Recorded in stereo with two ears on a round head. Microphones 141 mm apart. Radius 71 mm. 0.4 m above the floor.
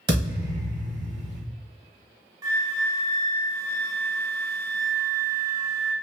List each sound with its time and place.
0.1 s a thud: 30° right (ahead or behind), 1.3 m
2.4 s a flute: 25° right (ahead or behind), 0.6 m